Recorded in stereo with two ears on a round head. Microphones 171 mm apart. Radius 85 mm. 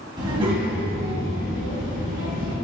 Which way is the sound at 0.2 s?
20° right (ahead or behind).